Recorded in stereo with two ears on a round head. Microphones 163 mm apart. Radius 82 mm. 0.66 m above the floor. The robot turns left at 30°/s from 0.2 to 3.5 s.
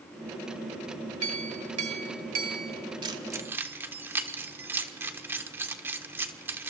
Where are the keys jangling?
25° right (ahead or behind), 1.2 m; by 6.7 s 10° right (ahead or behind), 1.2 m.